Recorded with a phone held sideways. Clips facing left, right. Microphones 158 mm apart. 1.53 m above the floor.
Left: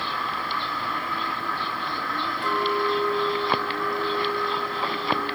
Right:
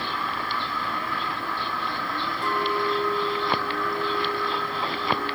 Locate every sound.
2.4 s a clink: 45° right (ahead or behind), 6 m